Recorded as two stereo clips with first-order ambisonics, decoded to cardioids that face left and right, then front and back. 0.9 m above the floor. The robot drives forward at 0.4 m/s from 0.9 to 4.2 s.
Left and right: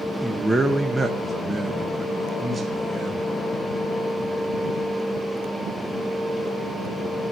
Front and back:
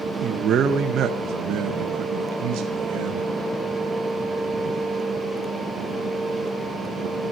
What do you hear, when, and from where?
0.2 s a man speaking: 170° right, 0.8 m; by 3.2 s 175° right, 1.5 m